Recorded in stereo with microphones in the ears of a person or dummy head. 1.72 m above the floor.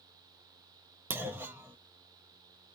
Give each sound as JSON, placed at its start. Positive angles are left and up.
{"t": 1.1, "sound": "a clunk", "side_deg": -10, "distance_m": 0.5}